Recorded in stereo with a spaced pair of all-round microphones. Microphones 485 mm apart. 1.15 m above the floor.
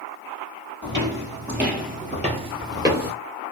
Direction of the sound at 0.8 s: 25° right (ahead or behind).